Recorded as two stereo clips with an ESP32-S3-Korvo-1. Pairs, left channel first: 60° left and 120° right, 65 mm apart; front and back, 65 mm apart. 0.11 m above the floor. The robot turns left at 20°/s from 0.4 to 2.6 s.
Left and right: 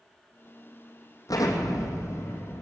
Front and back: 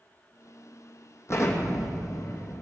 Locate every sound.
1.3 s an explosion: 45° left, 2.5 m; by 2.6 s 15° left, 2.5 m